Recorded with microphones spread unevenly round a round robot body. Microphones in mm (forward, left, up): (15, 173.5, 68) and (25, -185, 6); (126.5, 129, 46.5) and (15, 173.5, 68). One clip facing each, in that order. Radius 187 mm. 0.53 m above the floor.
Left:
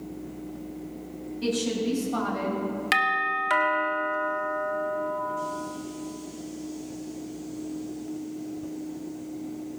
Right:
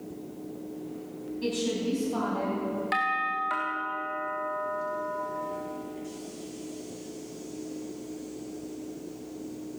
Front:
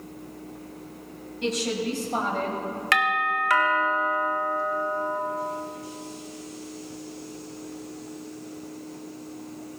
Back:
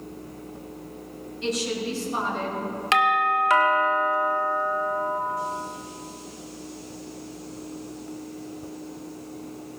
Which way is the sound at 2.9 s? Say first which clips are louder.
Left 2 dB, back 4 dB; 90° left.